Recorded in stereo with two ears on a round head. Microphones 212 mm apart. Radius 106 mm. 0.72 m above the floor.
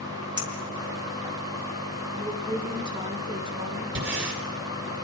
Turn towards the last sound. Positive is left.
turn(degrees=-55)  # may be behind; listen again after turning